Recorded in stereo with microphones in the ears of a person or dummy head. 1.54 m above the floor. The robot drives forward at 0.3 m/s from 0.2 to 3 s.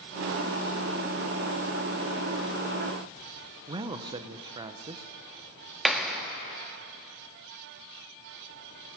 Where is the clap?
10° left (ahead or behind), 1.9 m.